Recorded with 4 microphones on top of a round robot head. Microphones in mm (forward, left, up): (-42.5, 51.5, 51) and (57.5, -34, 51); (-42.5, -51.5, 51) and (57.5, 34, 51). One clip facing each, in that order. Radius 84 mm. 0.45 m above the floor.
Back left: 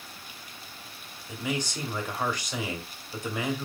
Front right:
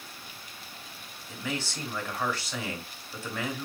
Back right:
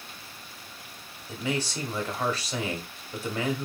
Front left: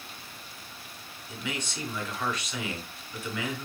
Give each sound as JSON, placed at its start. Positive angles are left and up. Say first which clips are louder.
{"t": 1.3, "sound": "a man speaking", "louder": "back left 3 dB, back right 6 dB", "azimuth_deg": -160, "distance_m": 0.8}